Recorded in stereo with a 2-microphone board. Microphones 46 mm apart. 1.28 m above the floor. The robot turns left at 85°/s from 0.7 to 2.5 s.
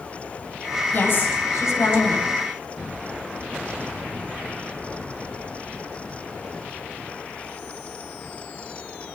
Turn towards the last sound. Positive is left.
turn(degrees=5)